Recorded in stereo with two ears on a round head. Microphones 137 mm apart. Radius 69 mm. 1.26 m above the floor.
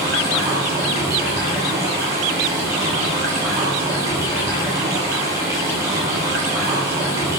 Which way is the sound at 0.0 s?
20° right (ahead or behind).